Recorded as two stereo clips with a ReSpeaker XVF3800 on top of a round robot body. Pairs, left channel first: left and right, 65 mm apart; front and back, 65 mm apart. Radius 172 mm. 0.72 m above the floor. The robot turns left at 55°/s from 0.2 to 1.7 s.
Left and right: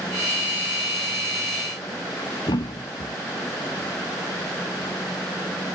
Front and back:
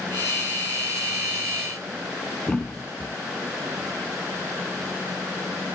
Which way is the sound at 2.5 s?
80° left.